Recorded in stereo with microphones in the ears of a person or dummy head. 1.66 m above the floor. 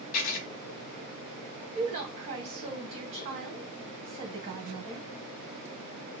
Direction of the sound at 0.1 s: 45° left (ahead or behind).